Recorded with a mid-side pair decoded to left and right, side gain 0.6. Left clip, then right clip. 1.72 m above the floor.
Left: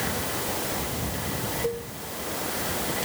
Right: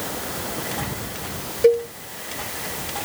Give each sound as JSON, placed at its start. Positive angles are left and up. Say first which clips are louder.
{"t": 1.6, "sound": "a cowbell", "louder": "right 18 dB", "azimuth_deg": -55, "distance_m": 0.9}